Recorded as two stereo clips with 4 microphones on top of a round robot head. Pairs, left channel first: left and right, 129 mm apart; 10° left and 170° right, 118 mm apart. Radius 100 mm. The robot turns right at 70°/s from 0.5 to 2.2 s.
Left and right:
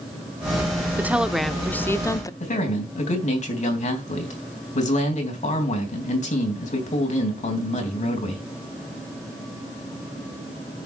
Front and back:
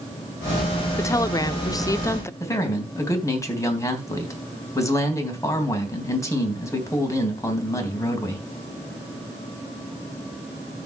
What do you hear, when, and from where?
1.0 s a woman speaking: 30° right, 0.8 m; by 2.3 s 55° left, 0.8 m
2.4 s a man speaking: 75° left, 3.5 m